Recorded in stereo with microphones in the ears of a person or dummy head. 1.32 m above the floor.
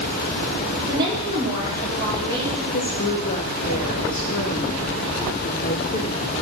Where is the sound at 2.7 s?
35° left (ahead or behind), 0.5 m.